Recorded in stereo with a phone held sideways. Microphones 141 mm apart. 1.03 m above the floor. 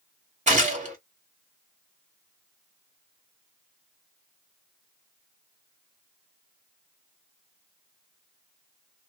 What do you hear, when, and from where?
0.5 s a gunshot: 55° right (ahead or behind), 1.6 m